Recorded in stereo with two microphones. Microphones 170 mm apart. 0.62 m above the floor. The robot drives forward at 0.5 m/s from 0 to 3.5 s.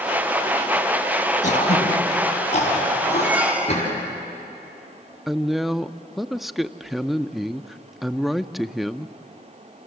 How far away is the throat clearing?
About 4 m.